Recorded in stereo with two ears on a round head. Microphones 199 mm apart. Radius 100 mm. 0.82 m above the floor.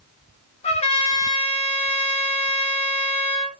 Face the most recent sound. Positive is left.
turn(degrees=30)  # may be behind; listen again after turning